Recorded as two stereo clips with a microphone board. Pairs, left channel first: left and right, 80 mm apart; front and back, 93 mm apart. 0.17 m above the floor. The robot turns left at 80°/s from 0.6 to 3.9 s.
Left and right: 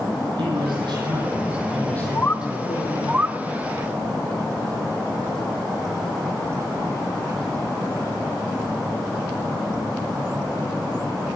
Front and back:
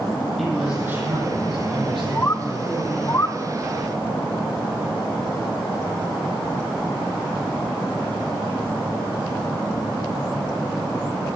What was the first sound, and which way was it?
A man speaking, 85° right.